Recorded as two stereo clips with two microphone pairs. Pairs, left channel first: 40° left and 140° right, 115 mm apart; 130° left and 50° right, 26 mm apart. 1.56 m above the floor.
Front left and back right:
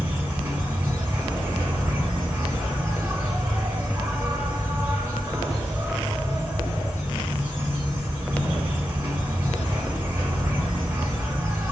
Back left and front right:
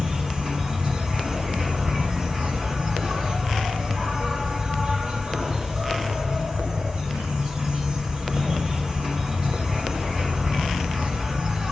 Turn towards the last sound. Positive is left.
turn(degrees=-80)